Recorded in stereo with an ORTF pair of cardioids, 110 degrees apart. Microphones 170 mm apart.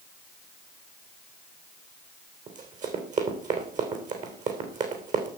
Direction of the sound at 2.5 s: 50° right.